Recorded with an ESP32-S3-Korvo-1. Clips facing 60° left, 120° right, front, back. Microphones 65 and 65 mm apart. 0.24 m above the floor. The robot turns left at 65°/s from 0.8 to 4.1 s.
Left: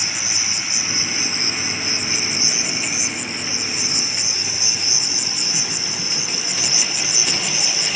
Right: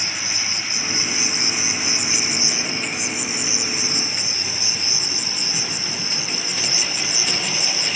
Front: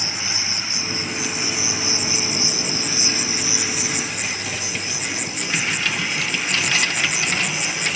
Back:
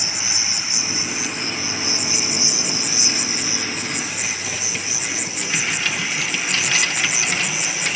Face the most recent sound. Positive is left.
turn(degrees=-95)